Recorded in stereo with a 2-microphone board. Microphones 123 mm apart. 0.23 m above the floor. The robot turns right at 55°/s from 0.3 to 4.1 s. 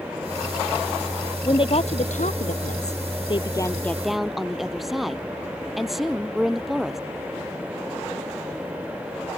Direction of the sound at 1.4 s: 35° left.